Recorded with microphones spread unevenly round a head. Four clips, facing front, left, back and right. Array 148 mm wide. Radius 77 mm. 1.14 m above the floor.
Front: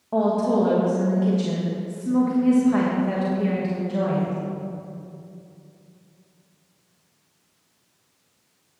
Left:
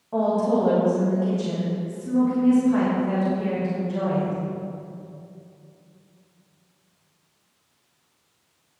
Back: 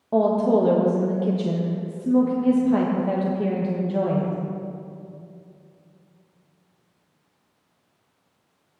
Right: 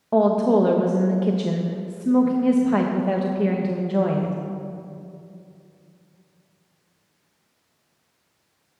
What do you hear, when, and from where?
0.1 s a woman speaking: 110° right, 1.2 m